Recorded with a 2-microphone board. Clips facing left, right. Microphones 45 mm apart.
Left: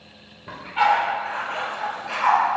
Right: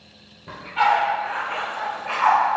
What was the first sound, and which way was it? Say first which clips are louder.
A dog barking: even; 15° left (ahead or behind).